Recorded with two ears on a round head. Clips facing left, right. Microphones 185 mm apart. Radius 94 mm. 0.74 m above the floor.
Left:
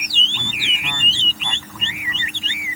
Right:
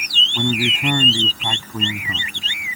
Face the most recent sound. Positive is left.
turn(degrees=-35)  # may be behind; listen again after turning